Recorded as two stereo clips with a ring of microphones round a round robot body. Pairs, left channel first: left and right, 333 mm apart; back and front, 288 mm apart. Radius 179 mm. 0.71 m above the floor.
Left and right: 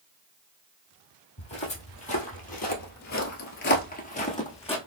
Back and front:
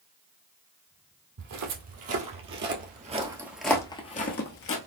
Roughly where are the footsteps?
Ahead.